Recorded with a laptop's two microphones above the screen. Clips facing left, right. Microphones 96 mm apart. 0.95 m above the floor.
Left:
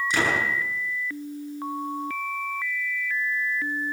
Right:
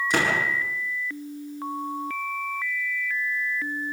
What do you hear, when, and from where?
0.1 s a door slam: 45° right (ahead or behind), 8.5 m